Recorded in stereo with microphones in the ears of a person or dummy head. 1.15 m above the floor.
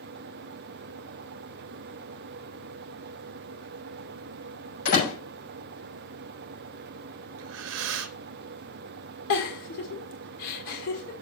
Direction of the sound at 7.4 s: 70° right (ahead or behind).